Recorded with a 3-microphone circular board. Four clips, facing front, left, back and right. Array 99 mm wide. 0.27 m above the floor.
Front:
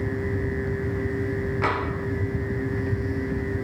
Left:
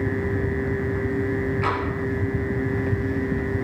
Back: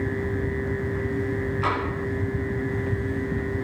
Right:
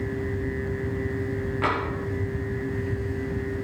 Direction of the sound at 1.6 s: 40° right.